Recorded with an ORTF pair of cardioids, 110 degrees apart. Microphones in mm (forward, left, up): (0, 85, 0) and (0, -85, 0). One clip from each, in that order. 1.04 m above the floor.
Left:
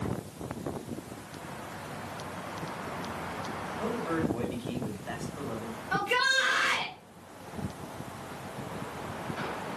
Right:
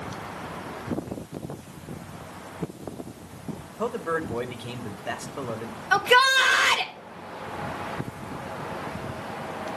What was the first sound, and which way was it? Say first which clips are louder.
A man speaking: right 5 dB; 50° right.